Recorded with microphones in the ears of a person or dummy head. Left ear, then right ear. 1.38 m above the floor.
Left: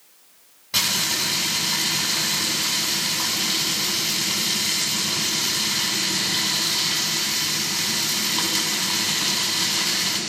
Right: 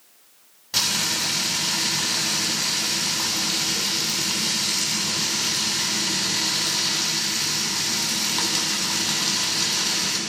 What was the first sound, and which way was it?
Frying, 5° right (ahead or behind).